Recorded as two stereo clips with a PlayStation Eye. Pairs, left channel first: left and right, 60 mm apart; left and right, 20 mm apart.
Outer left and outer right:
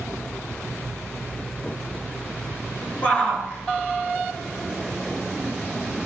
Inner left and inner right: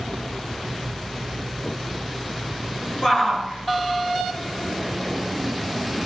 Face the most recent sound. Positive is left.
turn(degrees=40)  # may be behind; listen again after turning